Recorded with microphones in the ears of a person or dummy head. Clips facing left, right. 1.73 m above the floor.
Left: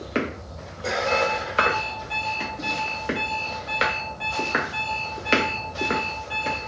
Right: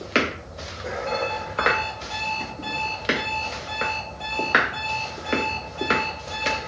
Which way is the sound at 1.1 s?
20° left (ahead or behind).